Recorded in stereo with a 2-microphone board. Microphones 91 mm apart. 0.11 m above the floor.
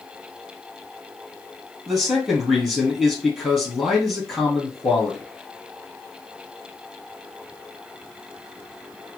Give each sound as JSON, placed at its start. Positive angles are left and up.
{"t": 1.9, "sound": "a man speaking", "side_deg": 0, "distance_m": 2.5}